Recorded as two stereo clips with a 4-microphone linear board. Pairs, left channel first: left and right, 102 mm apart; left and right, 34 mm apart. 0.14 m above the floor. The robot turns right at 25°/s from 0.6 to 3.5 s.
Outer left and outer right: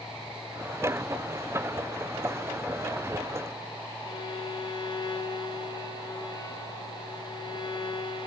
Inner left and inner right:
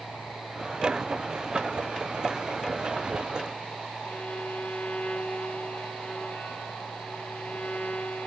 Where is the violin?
45° left (ahead or behind), 1.5 m.